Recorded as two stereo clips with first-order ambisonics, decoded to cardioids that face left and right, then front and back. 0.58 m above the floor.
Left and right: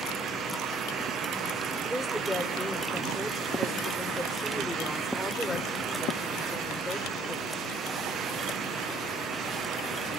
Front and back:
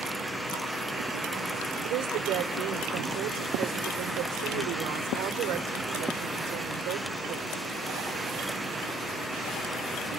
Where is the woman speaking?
Straight behind, 2.5 m.